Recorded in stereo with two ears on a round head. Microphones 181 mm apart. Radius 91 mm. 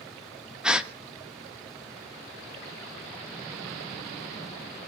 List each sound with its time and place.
0.6 s a gasp: 5° right (ahead or behind), 1.4 m